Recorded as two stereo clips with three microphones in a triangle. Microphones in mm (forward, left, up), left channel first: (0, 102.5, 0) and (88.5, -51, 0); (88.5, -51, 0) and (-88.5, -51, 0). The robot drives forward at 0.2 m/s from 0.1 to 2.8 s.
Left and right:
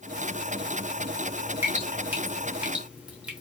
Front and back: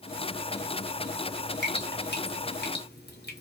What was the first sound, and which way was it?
Dripping, 20° left.